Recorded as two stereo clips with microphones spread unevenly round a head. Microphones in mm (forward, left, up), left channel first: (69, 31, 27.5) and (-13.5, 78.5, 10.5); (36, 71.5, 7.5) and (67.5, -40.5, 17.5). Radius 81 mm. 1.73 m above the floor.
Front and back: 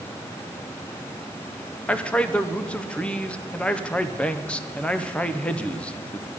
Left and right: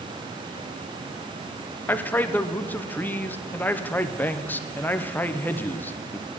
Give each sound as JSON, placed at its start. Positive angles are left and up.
{"t": 1.9, "sound": "a man speaking", "azimuth_deg": 30, "distance_m": 0.7}